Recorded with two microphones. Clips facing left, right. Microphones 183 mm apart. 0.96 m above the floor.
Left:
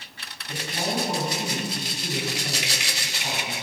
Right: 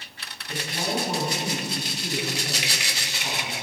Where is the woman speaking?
20° left (ahead or behind), 8 m.